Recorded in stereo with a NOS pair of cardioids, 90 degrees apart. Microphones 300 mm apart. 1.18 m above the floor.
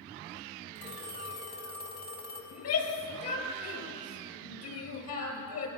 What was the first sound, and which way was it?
A phone ringing, 60° left.